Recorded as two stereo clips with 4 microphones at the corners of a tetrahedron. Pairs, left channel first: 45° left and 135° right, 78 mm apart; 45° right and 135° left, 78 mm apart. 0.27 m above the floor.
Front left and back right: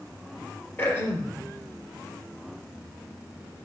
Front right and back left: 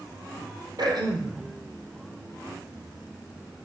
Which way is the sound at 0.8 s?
105° left.